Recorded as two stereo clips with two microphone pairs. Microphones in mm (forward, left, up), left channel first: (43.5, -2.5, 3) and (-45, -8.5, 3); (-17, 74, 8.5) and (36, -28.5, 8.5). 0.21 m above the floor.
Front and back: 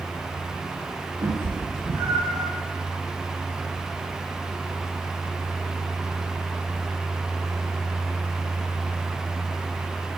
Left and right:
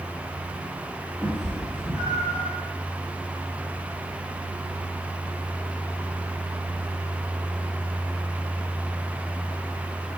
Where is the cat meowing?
145° right, 2 m; by 2.5 s 165° left, 2.5 m.